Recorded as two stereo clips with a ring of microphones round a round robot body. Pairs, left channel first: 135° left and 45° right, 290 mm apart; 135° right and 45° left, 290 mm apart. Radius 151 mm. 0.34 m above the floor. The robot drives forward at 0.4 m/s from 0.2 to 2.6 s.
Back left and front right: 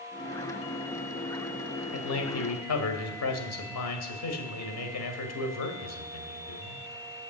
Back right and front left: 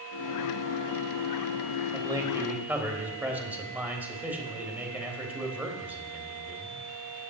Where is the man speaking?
120° left, 1.5 m; by 6.8 s 130° left, 1.6 m.